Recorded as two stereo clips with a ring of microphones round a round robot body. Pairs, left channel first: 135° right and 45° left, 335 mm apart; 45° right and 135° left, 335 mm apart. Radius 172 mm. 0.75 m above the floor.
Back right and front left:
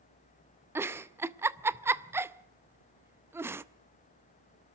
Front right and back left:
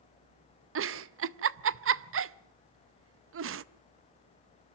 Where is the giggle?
125° left, 0.5 m.